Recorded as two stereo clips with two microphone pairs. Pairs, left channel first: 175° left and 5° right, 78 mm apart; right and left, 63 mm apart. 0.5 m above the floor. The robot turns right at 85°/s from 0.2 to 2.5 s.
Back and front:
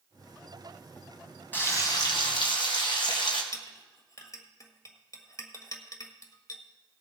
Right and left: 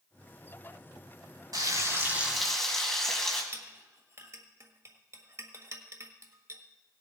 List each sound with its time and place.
1.5 s frying: 105° left, 2.5 m; by 3.4 s 175° right, 2.5 m
3.5 s a clink: 130° left, 1.5 m